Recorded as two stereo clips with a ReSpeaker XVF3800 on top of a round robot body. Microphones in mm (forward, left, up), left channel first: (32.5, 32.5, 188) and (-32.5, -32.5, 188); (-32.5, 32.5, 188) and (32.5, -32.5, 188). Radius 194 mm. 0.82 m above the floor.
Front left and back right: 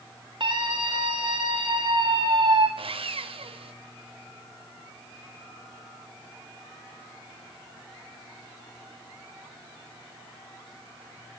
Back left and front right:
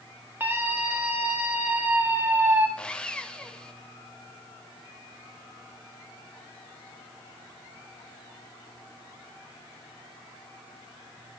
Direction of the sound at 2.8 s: 145° right.